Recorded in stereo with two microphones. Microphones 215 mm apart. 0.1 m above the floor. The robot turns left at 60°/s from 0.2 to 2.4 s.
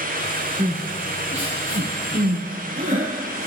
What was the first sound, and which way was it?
Crying, 35° right (ahead or behind).